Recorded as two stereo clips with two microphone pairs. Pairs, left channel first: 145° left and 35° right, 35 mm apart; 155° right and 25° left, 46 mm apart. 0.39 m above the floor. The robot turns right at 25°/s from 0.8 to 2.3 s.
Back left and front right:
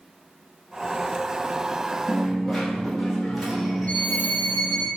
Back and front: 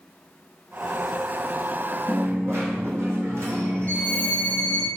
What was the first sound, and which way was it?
A dropped coin, 40° left.